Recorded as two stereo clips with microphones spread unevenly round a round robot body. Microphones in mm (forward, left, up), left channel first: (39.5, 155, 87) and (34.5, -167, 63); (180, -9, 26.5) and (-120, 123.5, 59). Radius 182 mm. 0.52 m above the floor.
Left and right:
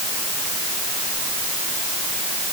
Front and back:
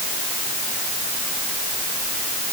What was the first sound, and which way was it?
Only background noise.